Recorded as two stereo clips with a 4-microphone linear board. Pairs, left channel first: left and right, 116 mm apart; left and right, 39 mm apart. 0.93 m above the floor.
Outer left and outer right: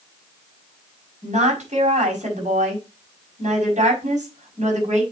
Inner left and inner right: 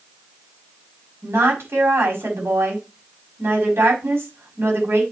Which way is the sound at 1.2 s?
75° right (ahead or behind).